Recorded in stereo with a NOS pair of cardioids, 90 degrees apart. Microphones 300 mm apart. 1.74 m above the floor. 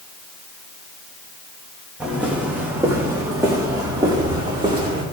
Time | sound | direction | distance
2.0 | footsteps | 5° right | 5.5 m